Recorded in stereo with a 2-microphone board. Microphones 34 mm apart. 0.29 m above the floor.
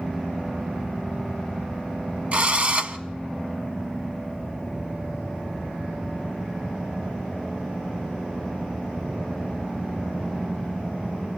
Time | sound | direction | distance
2.3 | a drill | 40° right (ahead or behind) | 0.9 m